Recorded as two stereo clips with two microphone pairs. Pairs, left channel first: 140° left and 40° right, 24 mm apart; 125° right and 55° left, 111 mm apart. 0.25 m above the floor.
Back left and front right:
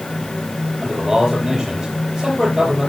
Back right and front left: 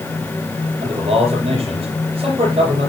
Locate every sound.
0.8 s a man speaking: 25° left, 5.5 m